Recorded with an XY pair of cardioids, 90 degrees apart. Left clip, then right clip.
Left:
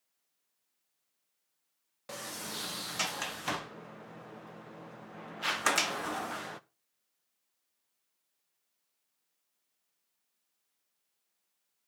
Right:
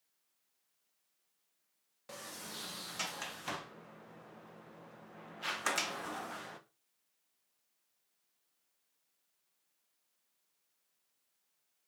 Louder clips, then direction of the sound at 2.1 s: Left 6 dB; 50° left.